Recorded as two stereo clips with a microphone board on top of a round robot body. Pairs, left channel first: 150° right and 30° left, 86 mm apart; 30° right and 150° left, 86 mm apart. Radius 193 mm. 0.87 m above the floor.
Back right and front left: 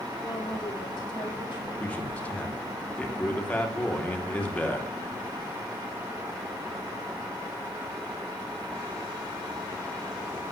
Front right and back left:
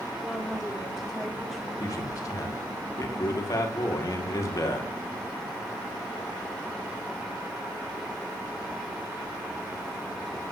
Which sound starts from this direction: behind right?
A woman speaking, at 0.2 s.